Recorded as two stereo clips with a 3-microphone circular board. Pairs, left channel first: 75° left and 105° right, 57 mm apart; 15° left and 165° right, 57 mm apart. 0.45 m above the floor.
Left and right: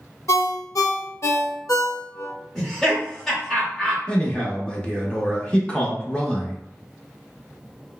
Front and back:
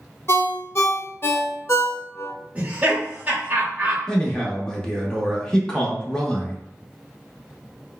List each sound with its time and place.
0.3 s a ringtone: 55° left, 0.5 m
2.5 s laughter: 150° left, 1.3 m
4.1 s a man speaking: 60° left, 0.7 m